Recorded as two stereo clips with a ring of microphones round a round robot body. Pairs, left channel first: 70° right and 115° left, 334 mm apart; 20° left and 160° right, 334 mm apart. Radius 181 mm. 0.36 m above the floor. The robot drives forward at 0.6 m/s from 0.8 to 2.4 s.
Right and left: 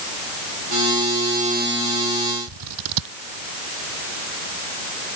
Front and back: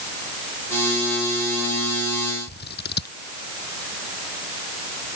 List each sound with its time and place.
2.5 s scissors: 85° left